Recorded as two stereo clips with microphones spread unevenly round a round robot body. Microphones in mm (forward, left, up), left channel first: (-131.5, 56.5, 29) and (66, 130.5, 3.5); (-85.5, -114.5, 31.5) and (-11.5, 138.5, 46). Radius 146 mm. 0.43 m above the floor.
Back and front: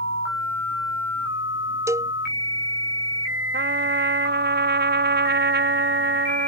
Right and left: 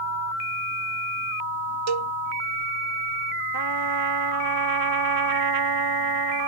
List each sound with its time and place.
1.9 s a cowbell: 100° left
3.5 s a trumpet: 60° left